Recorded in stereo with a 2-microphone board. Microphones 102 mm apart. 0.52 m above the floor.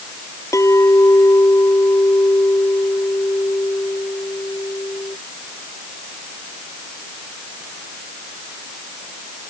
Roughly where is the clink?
Left.